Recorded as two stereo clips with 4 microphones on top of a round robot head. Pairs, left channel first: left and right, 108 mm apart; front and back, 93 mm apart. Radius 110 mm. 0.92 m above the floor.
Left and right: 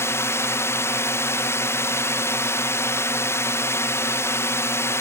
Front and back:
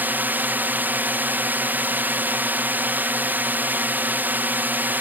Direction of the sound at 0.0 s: 130° left.